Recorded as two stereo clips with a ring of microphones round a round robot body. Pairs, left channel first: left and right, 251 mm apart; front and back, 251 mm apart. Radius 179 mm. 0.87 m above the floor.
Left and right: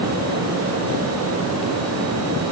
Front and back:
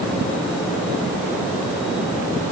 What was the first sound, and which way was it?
Only background noise.